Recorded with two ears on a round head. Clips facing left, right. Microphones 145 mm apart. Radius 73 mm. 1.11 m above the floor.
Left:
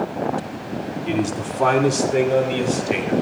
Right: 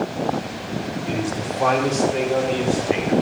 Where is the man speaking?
75° left (ahead or behind), 2 m; by 3.1 s 45° left (ahead or behind), 3.5 m.